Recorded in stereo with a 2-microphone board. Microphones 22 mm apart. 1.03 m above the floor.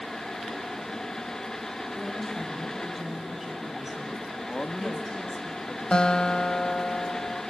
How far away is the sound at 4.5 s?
About 1.5 m.